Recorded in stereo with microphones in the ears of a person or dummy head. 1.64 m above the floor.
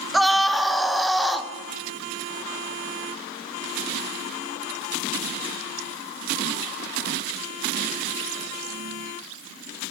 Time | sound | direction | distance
0.1 | a scream | centre (ahead or behind) | 1.4 m